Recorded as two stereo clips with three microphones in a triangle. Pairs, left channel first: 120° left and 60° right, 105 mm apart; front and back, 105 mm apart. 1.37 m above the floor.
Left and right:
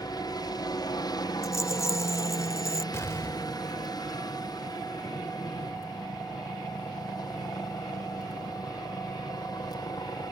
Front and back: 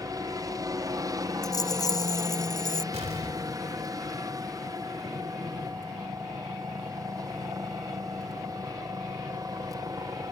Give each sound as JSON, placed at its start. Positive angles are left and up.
{"t": 0.0, "sound": "a helicopter", "azimuth_deg": 145}
{"t": 1.4, "sound": "a rattle", "azimuth_deg": 60}
{"t": 2.9, "sound": "an explosion", "azimuth_deg": -175}